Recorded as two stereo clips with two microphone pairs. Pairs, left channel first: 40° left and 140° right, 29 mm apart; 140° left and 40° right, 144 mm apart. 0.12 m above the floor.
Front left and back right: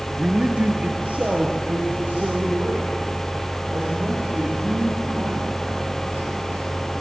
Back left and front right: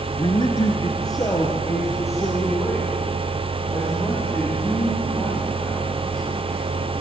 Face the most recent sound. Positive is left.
turn(degrees=-140)